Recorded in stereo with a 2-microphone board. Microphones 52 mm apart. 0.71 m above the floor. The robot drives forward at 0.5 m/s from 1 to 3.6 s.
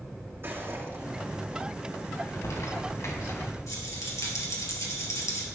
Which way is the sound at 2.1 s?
85° left.